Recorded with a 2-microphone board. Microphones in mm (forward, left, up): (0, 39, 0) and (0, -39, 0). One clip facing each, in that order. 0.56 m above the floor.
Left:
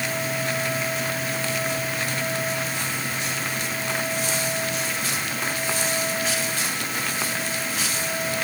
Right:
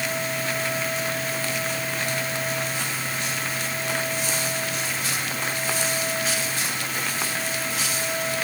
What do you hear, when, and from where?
Only background noise.